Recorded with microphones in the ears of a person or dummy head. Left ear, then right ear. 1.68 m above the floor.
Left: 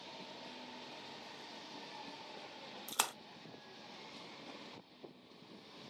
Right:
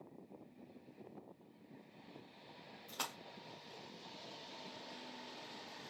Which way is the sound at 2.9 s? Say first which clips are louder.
Left 6 dB; 45° left (ahead or behind).